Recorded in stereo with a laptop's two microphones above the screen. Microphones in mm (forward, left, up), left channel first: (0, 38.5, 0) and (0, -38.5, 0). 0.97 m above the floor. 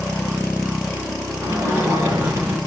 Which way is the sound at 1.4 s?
35° right (ahead or behind).